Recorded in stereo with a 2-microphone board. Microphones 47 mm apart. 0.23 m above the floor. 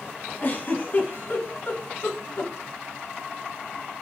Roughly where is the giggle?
Left.